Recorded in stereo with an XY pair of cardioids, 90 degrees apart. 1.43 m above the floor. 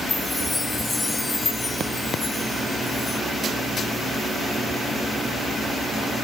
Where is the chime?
25° left.